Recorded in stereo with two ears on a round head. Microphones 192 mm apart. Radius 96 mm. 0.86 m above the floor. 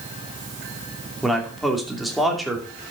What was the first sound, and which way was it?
A man speaking, centre (ahead or behind).